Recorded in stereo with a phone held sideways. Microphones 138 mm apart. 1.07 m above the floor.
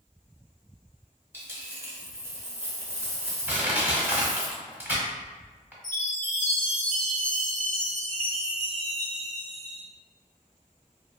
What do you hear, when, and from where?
1.3 s a dropped coin: 15° right (ahead or behind), 0.7 m
3.5 s crushing: 15° right (ahead or behind), 1.0 m
5.8 s a chime: 65° left (ahead or behind), 1.8 m